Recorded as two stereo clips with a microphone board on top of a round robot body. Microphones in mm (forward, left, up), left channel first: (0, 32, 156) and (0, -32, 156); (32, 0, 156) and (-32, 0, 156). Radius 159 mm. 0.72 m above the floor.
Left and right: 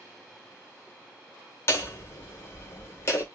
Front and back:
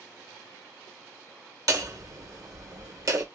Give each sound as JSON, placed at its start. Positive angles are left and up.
{"t": 1.7, "sound": "hammering", "azimuth_deg": 140, "distance_m": 1.9}